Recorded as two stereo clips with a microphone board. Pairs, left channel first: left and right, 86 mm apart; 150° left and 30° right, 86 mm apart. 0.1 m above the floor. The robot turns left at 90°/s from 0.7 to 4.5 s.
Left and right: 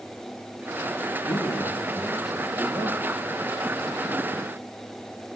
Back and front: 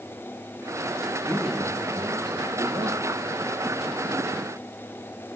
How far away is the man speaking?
About 4 m.